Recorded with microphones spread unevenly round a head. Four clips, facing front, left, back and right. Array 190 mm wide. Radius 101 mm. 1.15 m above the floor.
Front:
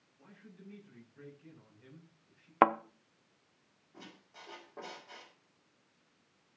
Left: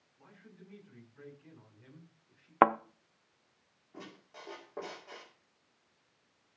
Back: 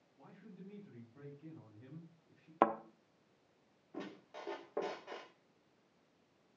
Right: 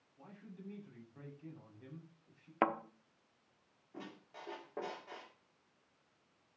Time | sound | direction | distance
0.2 | a man speaking | 140° right | 7 m
2.6 | a thud | 35° left | 0.9 m
3.9 | a squeak | straight behind | 2 m